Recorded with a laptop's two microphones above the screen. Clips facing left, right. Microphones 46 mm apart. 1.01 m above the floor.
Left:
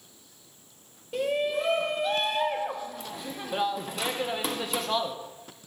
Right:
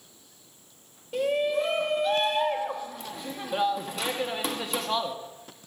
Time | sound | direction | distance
1.1 | a shout | centre (ahead or behind) | 0.9 m